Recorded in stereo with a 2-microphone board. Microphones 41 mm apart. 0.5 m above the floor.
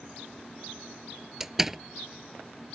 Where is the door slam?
10° right (ahead or behind).